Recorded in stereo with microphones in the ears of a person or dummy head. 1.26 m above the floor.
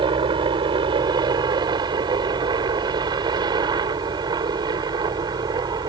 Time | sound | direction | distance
0.0 | a helicopter | 25° right (ahead or behind) | ?